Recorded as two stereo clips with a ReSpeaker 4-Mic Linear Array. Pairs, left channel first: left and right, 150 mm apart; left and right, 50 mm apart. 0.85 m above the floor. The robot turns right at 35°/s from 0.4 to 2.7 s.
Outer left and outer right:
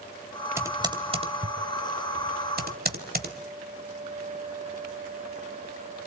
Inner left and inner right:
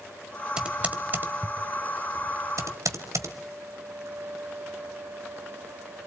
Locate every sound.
0.6 s typing on a keyboard: 15° right (ahead or behind), 1.5 m; by 3.4 s 80° right, 1.5 m